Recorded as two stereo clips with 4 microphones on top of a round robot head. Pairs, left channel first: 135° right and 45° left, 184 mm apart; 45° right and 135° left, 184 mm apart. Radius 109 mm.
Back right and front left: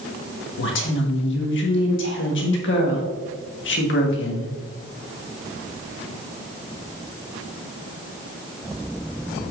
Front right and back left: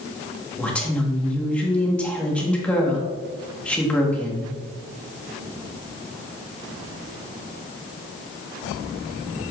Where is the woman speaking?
125° right, 1.4 m.